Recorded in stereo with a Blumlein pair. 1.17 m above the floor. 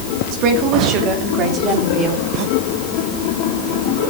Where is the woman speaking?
40° right, 2.5 m; by 2.2 s 20° right, 4 m.